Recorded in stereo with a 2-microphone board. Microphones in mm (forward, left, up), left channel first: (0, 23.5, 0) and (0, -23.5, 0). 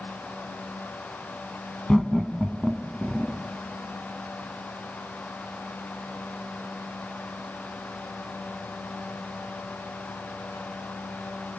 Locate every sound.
1.9 s laughter: 15° left (ahead or behind), 1.0 m; by 3.4 s 10° right (ahead or behind), 1.2 m